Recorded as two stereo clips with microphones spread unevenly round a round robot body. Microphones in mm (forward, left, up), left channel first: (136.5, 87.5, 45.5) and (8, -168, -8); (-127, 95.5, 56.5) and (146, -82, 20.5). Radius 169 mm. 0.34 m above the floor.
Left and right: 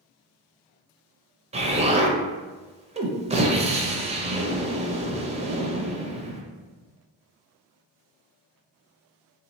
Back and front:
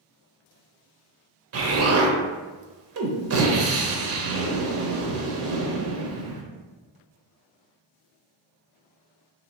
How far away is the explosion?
About 0.6 m.